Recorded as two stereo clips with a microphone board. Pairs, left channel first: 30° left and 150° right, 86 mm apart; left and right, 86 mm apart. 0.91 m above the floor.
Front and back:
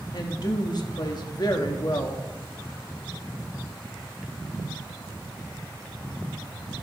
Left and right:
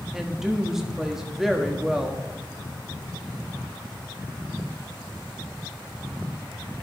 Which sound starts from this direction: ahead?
A woman speaking, at 0.1 s.